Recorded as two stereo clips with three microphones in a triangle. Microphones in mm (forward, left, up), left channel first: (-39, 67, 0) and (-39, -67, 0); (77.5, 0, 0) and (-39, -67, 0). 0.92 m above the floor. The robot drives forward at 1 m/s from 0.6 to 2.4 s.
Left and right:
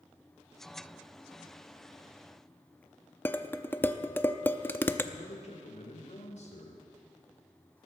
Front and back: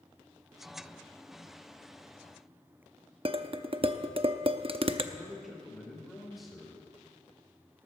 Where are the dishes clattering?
165° left, 0.7 m.